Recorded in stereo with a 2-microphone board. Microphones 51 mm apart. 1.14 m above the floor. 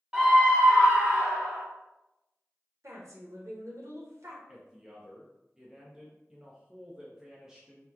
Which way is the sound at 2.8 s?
75° right (ahead or behind).